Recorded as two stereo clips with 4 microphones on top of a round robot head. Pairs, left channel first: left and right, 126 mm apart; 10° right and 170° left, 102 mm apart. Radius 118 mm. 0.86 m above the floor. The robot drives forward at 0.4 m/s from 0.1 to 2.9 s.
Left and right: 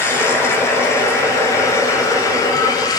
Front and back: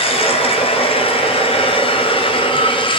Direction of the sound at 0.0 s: 15° left.